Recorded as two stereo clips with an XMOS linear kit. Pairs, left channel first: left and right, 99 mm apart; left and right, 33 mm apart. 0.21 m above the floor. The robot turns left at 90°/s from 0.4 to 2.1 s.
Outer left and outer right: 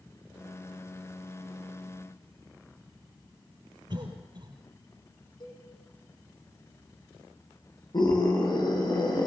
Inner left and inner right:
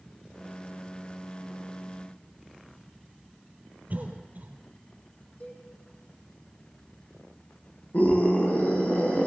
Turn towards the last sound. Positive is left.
turn(degrees=50)  # may be behind; listen again after turning